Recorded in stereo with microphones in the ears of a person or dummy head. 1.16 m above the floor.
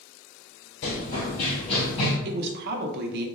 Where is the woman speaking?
60° right (ahead or behind), 0.6 m.